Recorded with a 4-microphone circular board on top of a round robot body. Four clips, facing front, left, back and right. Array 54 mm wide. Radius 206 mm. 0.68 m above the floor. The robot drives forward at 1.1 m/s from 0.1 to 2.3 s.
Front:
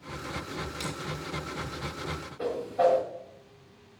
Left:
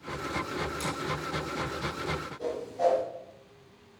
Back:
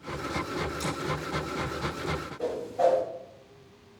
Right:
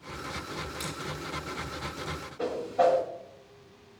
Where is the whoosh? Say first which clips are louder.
Right 4 dB, front 1 dB; 65° right, 4 m.